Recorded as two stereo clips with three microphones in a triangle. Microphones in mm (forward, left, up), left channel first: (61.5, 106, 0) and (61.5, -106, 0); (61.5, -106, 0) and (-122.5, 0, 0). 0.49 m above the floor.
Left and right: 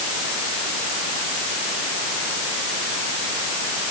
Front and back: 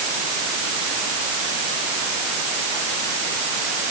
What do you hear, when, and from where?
Only background noise.